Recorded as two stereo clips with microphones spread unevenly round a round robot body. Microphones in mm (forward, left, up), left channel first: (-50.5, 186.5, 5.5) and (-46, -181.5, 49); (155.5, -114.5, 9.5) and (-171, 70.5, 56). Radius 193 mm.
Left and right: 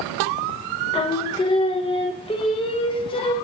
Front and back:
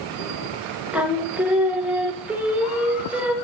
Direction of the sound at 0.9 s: 50° left.